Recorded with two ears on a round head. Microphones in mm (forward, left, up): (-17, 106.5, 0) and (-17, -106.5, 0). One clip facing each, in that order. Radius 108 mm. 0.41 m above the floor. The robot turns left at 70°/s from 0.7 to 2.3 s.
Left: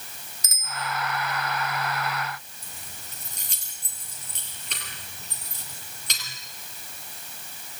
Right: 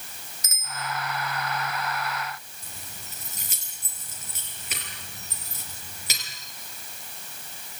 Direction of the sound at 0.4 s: 30° left (ahead or behind).